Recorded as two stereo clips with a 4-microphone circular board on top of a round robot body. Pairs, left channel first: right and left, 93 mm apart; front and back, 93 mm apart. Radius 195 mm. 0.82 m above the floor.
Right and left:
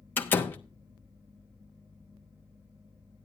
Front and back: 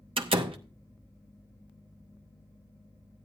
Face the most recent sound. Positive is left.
turn(degrees=-160)